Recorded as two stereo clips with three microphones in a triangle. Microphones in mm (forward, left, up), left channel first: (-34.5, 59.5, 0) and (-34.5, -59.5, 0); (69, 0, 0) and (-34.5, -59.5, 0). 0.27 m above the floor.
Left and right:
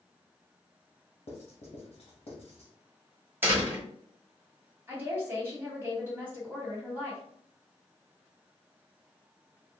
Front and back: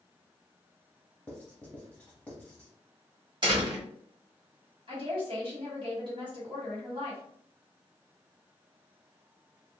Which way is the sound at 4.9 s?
155° right.